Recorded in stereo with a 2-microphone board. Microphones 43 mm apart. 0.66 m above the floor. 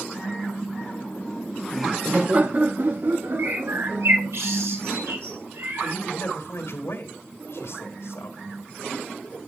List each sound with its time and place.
0.8 s laughter: 50° left (ahead or behind), 1.0 m; by 4.4 s 75° right (ahead or behind), 2 m
3.4 s a bird: 75° right (ahead or behind), 2.5 m
5.8 s a man speaking: 75° left (ahead or behind), 2.5 m